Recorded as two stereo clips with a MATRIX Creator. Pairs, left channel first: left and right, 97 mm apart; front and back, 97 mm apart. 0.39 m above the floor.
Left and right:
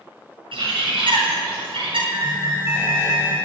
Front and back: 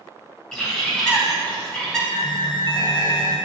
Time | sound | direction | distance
0.5 | a bird | 85° right | 3.5 m
2.1 | an alarm | 35° right | 2.5 m